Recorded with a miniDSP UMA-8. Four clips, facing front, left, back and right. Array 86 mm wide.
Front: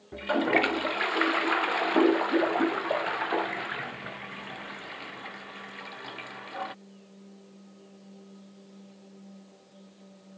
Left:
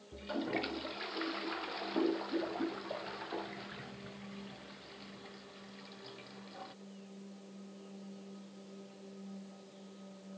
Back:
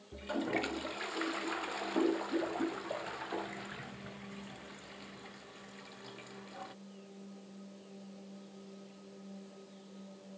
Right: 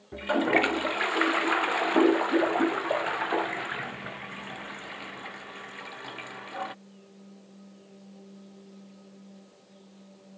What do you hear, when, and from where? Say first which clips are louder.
0.1 s a toilet flushing: right 13 dB, front 10 dB; 50° right